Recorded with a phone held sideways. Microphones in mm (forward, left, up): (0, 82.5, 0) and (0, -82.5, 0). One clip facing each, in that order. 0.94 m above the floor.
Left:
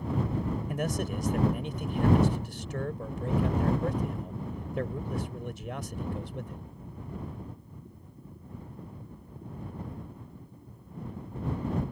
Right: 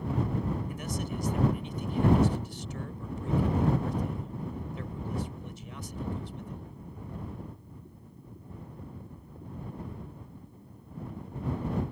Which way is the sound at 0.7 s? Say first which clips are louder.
Left 4 dB; 85° left.